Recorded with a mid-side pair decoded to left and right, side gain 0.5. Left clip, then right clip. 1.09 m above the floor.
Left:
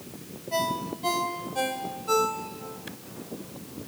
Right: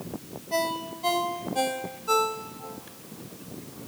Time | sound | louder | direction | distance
0.5 | a ringtone | even | 15° right | 3 m